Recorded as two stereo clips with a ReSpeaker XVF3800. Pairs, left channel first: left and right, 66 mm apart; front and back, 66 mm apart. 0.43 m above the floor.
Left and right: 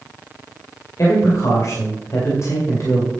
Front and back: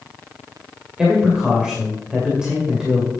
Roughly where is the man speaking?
Left.